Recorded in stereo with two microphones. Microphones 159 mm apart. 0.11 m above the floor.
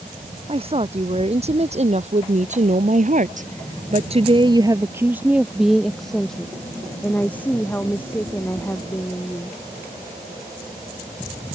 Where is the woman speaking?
40° right (ahead or behind); by 9.6 s 15° left (ahead or behind).